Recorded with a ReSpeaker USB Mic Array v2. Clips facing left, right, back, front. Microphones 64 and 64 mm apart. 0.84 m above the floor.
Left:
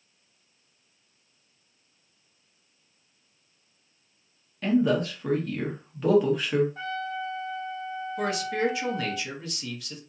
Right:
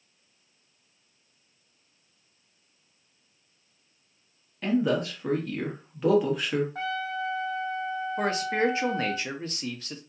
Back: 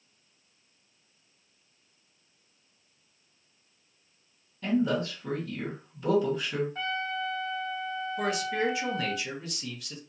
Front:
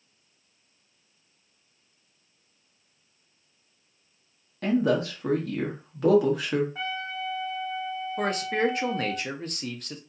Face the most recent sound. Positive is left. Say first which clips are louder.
# right 1 dB, front 3 dB
turn(degrees=-40)